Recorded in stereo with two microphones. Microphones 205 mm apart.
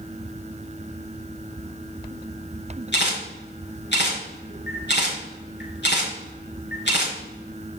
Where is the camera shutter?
60° left (ahead or behind), 5.5 m.